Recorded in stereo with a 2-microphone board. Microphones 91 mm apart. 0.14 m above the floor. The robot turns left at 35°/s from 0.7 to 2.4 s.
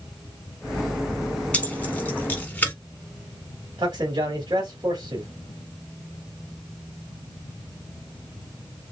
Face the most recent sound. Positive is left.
turn(degrees=-50)  # may be behind; listen again after turning